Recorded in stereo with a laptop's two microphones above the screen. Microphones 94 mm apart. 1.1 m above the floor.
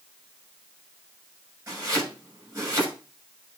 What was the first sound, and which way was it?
Chopping, 35° right (ahead or behind).